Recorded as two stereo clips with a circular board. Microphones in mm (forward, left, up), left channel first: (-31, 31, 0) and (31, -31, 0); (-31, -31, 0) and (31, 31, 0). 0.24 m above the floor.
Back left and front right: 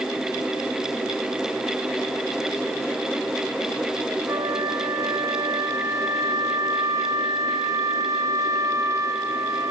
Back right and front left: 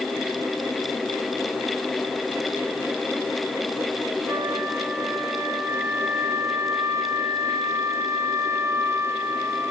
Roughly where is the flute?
Ahead.